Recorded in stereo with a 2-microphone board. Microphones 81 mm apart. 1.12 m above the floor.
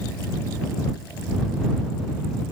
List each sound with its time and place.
Only background noise.